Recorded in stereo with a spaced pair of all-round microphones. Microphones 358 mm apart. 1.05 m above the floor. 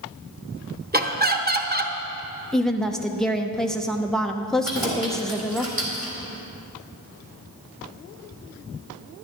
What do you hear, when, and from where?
0.9 s laughter: 25° right (ahead or behind), 1.0 m
2.5 s a woman speaking: centre (ahead or behind), 0.7 m
4.7 s keys jangling: 70° right (ahead or behind), 2.5 m